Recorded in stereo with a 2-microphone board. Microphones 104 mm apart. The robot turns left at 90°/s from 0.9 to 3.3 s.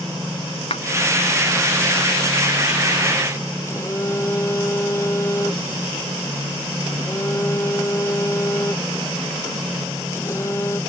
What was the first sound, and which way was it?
A clap, 75° left (ahead or behind).